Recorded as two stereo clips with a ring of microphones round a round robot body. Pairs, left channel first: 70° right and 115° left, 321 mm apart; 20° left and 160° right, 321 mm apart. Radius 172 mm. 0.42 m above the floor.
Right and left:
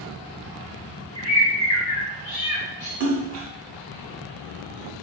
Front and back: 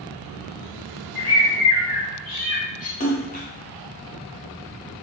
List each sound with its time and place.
1.1 s a bird: 40° right, 2.5 m
3.0 s a splash: 80° left, 1.1 m